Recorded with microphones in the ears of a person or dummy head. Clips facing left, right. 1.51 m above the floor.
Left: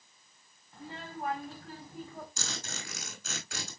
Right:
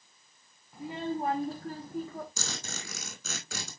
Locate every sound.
0.7 s a child speaking: 5° right (ahead or behind), 0.8 m; by 2.3 s 55° right (ahead or behind), 1.4 m
2.4 s a zipper: 80° right, 5.5 m